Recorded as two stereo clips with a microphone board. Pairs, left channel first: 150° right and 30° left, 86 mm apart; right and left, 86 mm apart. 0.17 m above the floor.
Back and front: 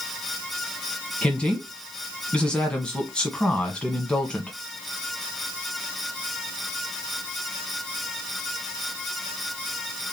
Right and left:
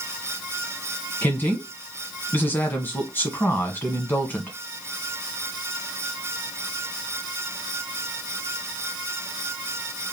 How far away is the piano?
No piano in this recording.